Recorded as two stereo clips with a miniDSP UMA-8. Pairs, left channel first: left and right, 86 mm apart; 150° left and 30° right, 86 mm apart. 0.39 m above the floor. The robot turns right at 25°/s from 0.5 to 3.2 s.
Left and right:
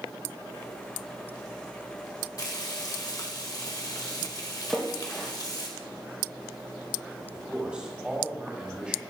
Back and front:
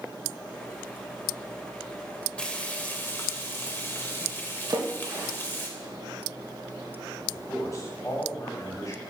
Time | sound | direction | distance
2.4 | frying | 80° left | 1.4 m
4.7 | a splash | 5° left | 3.5 m
7.3 | a man speaking | 165° right | 3 m